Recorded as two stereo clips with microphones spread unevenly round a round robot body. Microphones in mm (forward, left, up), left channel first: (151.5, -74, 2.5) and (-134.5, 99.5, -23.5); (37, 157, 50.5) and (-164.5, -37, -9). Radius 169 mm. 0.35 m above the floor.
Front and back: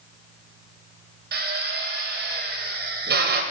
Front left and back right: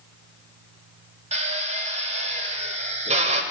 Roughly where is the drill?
Behind.